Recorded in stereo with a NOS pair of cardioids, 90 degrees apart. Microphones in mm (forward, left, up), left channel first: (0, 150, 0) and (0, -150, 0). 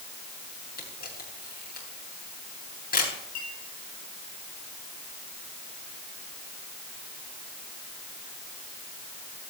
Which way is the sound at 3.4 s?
60° left.